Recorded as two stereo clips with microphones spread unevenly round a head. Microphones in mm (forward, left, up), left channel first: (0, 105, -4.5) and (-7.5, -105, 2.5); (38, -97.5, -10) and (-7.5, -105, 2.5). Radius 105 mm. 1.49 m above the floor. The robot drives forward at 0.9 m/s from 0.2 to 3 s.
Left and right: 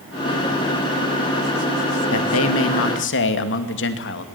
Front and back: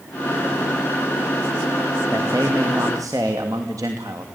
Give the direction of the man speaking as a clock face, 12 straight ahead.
8 o'clock.